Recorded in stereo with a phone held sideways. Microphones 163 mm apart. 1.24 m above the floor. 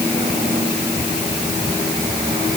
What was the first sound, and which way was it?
Only background noise.